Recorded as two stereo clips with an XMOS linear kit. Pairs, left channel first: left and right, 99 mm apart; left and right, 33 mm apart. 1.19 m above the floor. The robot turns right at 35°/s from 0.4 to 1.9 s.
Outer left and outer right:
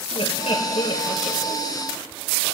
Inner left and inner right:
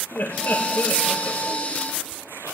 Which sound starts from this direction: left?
Laughter, at 0.1 s.